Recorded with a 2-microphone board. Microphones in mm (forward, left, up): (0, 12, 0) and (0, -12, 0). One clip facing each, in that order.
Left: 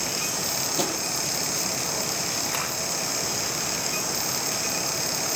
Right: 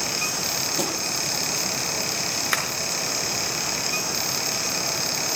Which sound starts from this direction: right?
Tapping, at 2.5 s.